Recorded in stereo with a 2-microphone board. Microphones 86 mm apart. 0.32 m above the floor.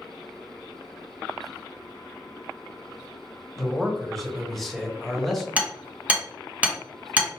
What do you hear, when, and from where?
3.6 s a man speaking: 5° left (ahead or behind), 1.2 m
5.6 s hammering: 15° right (ahead or behind), 1.4 m